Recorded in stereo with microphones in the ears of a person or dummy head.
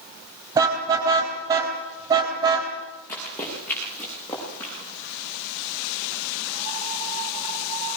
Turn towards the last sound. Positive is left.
turn(degrees=10)  # may be behind; listen again after turning